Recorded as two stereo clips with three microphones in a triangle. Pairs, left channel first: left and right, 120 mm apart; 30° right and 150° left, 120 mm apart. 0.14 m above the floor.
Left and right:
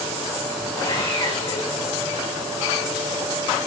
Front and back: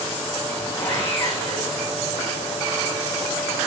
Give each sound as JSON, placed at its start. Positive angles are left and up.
{"t": 0.8, "sound": "sawing", "azimuth_deg": 45, "distance_m": 7.0}